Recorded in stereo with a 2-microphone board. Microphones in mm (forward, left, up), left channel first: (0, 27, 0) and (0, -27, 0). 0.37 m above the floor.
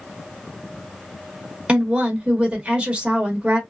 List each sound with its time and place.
1.7 s a woman speaking: 25° right (ahead or behind), 0.9 m